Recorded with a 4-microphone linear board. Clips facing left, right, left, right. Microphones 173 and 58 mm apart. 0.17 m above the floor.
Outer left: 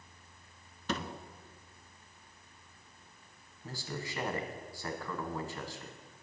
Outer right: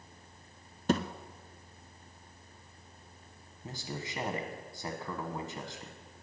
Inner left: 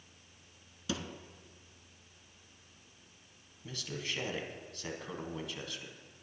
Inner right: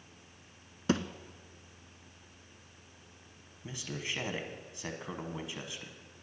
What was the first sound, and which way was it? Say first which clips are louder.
A thud: outer right 8 dB, inner right 8 dB; 45° right (ahead or behind).